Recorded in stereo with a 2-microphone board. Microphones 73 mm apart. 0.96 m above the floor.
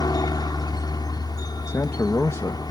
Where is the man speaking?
40° left (ahead or behind).